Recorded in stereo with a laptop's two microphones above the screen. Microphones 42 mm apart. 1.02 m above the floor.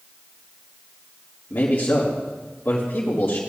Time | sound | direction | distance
1.5 | a man speaking | 65° left (ahead or behind) | 1.7 m